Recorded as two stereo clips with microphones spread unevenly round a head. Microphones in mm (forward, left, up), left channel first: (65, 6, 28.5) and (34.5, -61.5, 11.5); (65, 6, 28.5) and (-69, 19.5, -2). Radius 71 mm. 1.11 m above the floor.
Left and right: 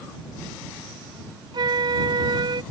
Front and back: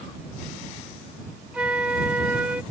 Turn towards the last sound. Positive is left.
turn(degrees=-105)